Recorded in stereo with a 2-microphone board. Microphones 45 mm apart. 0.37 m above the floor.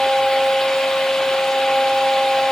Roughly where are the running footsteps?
I don't hear running footsteps.